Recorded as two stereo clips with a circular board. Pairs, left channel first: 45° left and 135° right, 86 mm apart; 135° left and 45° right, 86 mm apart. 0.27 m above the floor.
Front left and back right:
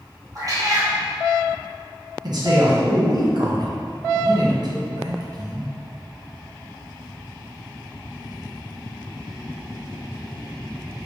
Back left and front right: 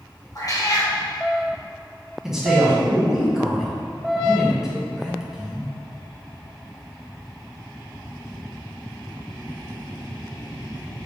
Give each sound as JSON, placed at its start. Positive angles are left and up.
{"t": 0.3, "sound": "a cat meowing", "azimuth_deg": 180, "distance_m": 2.0}
{"t": 2.2, "sound": "a man speaking", "azimuth_deg": -130, "distance_m": 1.9}